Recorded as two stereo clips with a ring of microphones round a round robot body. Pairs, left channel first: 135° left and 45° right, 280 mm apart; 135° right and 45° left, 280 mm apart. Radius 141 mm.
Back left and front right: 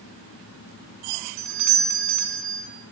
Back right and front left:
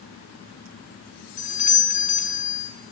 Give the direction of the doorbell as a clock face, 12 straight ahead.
2 o'clock.